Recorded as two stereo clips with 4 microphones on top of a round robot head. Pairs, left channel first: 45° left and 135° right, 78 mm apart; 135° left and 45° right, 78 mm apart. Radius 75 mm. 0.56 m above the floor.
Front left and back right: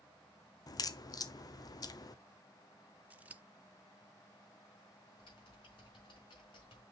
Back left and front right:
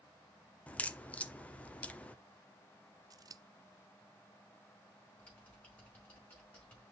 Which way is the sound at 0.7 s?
65° left.